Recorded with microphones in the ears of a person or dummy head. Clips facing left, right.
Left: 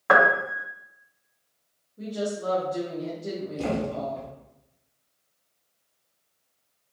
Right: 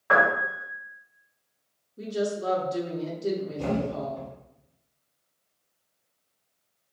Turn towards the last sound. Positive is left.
turn(degrees=60)  # may be behind; listen again after turning